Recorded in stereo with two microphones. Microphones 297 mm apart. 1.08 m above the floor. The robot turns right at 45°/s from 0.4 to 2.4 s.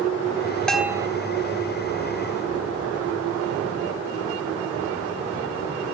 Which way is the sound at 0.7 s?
5° left (ahead or behind).